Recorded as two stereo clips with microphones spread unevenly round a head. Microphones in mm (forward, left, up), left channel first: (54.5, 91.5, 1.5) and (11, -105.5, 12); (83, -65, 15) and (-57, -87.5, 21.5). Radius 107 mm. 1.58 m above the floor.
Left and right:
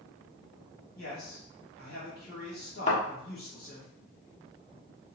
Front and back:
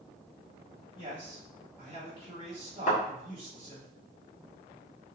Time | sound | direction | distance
1.0 | a man speaking | 125° left | 1.9 m
2.9 | a thud | 30° left | 1.4 m